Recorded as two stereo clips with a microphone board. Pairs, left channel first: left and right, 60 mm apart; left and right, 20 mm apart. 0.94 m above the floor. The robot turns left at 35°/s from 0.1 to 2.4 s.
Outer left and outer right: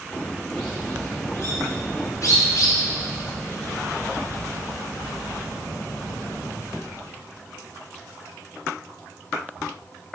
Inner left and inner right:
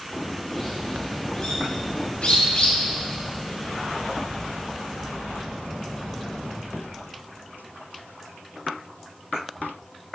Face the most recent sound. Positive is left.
turn(degrees=65)  # may be behind; listen again after turning